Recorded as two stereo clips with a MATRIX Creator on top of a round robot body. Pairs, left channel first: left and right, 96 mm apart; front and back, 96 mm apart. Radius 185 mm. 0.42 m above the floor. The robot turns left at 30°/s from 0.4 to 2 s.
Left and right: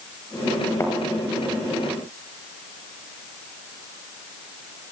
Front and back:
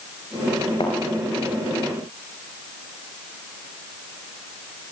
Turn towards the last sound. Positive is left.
turn(degrees=-10)